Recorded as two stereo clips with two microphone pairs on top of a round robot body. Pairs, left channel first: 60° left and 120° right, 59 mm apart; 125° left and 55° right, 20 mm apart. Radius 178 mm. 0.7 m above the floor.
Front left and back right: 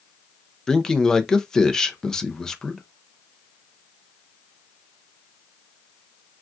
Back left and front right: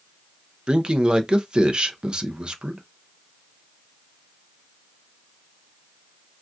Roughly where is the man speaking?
Ahead.